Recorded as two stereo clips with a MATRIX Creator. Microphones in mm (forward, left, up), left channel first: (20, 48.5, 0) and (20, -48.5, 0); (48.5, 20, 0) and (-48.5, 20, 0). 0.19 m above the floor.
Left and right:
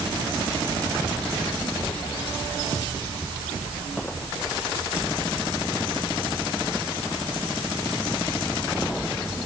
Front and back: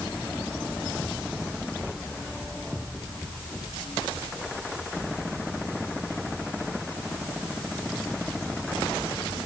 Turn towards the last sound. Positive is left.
No sound to turn to.